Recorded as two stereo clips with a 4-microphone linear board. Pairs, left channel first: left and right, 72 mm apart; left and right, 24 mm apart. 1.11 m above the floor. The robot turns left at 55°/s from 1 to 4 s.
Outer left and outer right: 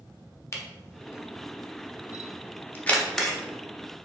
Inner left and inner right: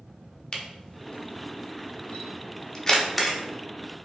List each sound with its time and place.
0.5 s a camera shutter: 40° left (ahead or behind), 0.7 m; by 3.4 s 5° right (ahead or behind), 0.7 m